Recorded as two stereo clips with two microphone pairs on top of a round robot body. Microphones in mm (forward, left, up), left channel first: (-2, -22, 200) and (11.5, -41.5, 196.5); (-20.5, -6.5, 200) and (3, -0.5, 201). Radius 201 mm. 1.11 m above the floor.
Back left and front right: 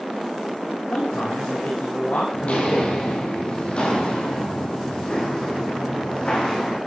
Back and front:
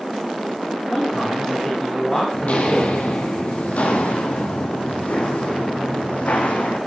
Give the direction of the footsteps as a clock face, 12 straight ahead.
7 o'clock.